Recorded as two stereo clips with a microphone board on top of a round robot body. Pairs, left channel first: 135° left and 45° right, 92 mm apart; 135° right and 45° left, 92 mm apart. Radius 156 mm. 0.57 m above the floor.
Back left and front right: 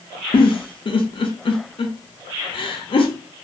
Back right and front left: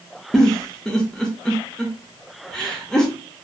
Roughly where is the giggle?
Behind left.